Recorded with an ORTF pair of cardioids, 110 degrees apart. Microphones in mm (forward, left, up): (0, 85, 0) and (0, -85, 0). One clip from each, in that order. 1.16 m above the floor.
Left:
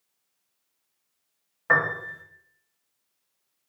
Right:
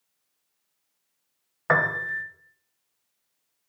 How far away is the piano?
About 0.5 m.